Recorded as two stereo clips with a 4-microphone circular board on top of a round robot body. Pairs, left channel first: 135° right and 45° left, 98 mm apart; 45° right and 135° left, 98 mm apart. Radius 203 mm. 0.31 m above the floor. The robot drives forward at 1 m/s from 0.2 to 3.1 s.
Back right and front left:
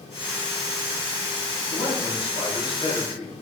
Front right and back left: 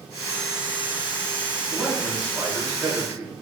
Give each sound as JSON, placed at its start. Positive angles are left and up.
{"t": 1.7, "sound": "a man speaking", "azimuth_deg": -135, "distance_m": 4.0}